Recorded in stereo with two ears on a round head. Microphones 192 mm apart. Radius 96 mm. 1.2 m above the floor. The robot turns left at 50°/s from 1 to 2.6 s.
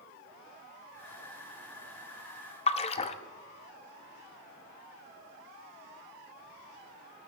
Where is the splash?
30° left (ahead or behind), 0.6 m.